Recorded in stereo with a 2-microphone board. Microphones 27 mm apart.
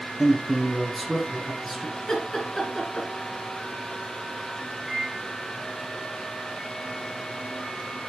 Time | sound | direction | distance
0.2 | a man speaking | 5° left (ahead or behind) | 1.7 m
2.0 | laughter | 20° left (ahead or behind) | 2 m
4.9 | a microwave | 20° right (ahead or behind) | 2 m